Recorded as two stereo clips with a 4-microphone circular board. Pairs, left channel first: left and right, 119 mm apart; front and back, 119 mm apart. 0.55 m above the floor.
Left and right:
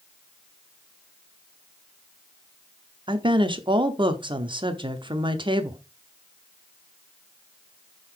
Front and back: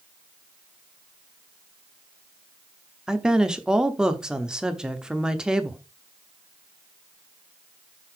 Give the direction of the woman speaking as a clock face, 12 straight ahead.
3 o'clock.